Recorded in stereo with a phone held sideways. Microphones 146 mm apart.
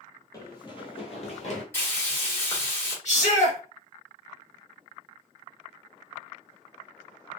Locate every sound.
0.3 s running footsteps: 25° left (ahead or behind), 1.2 m; by 1.6 s 50° left (ahead or behind), 1.2 m
1.7 s frying: 15° left (ahead or behind), 1.6 m
3.0 s a shout: 50° left (ahead or behind), 1.4 m